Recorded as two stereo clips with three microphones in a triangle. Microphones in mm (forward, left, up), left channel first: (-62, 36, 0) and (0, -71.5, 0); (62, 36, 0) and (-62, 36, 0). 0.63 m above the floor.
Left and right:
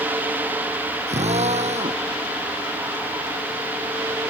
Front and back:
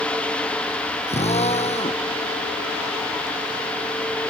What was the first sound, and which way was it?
A drill, 30° right.